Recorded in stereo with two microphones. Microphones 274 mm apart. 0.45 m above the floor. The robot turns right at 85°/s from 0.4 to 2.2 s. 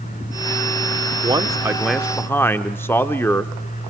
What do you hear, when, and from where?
1.2 s a man speaking: 20° right (ahead or behind), 0.7 m; by 3.5 s 10° left (ahead or behind), 0.7 m